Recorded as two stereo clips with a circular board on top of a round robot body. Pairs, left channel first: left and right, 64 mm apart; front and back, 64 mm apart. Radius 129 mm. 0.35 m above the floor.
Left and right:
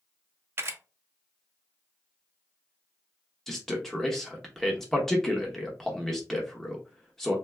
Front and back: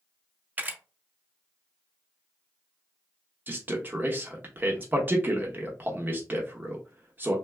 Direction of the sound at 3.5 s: 170° left.